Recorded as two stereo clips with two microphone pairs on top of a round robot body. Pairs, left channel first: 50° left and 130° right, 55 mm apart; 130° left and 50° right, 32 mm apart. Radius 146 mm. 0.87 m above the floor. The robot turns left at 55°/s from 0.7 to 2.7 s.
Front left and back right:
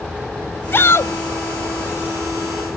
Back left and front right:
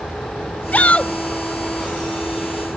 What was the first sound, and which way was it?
A shout, 95° left.